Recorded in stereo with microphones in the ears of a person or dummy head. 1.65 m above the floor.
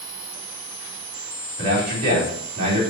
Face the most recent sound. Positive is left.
turn(degrees=-55)  # may be behind; listen again after turning